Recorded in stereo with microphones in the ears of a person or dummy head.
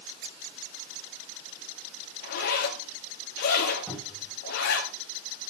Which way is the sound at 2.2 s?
65° left (ahead or behind).